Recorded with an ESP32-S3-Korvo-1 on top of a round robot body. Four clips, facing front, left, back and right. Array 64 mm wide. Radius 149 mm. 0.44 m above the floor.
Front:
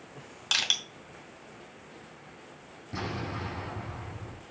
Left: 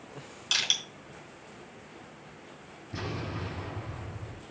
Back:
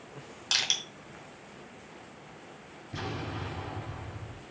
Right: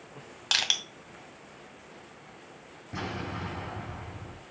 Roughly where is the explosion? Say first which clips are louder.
Right 1 dB, front 2 dB; ahead right.